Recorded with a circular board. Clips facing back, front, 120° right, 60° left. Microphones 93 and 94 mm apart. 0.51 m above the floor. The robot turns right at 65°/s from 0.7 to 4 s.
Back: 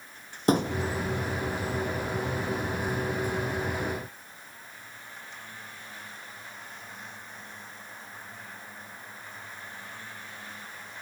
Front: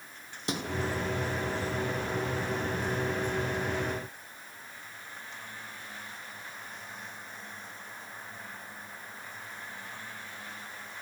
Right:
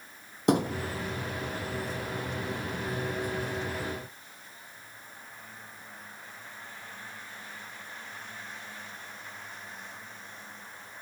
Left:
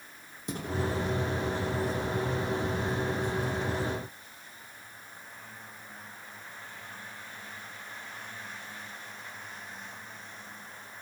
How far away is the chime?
I don't hear a chime.